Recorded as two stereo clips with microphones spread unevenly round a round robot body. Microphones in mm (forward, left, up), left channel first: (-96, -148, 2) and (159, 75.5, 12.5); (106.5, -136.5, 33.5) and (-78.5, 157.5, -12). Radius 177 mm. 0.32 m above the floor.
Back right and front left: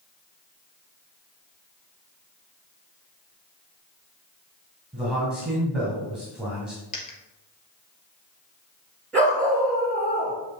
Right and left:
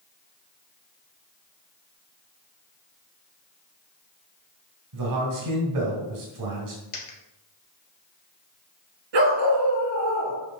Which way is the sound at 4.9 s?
130° left.